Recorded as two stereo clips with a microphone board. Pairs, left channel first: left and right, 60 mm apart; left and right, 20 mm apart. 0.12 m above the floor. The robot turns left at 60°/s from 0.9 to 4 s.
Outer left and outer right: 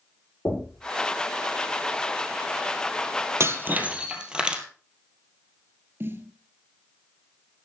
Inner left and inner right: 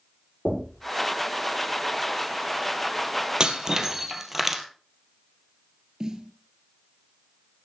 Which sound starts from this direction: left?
Knocking, at 0.5 s.